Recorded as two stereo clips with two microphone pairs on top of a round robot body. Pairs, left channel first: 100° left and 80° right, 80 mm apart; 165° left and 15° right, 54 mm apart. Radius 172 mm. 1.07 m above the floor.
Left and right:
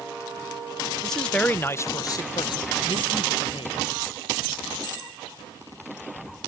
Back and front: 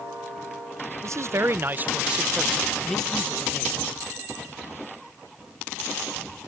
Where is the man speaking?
10° left; by 3.9 s 100° left.